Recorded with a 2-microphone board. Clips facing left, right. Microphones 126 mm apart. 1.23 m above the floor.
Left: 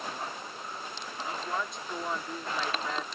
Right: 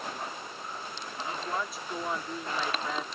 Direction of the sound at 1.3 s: 5° right (ahead or behind).